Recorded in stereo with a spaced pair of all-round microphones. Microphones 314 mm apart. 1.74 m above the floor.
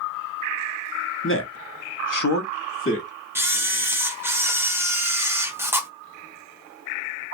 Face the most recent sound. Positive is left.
turn(degrees=-10)  # may be behind; listen again after turning